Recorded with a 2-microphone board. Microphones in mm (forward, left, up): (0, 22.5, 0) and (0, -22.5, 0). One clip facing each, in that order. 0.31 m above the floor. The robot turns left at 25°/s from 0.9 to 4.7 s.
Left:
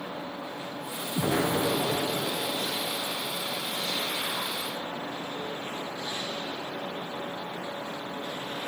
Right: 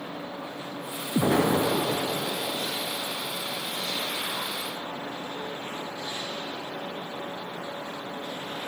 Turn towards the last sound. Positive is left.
turn(degrees=180)